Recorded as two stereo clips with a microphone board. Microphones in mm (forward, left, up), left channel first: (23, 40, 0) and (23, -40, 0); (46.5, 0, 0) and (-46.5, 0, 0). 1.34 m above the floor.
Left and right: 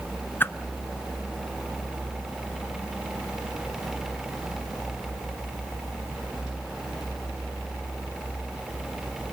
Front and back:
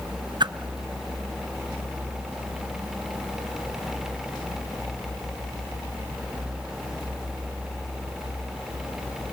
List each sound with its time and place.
0.4 s a whoosh: 150° left, 0.7 m